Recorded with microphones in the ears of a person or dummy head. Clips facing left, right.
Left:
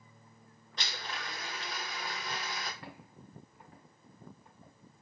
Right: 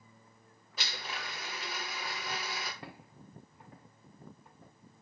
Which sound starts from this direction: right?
Footsteps, at 2.8 s.